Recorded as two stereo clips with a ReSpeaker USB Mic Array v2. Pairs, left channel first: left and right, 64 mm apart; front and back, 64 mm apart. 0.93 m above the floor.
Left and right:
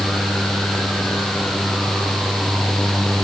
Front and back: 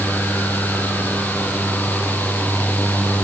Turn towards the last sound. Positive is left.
No sound to turn to.